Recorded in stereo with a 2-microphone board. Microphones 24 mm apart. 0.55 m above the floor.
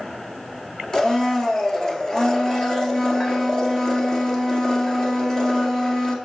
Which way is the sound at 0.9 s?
25° left (ahead or behind).